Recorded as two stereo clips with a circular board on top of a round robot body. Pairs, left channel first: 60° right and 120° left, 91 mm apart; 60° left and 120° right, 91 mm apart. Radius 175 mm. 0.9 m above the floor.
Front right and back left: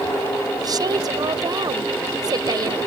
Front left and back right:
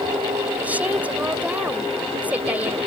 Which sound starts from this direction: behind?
A woman speaking, at 0.6 s.